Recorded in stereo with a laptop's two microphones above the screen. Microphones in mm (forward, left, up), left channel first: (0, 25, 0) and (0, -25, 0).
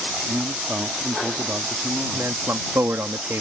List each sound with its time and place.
0.3 s a man speaking: 40° right (ahead or behind)
2.1 s a man speaking: 60° right (ahead or behind)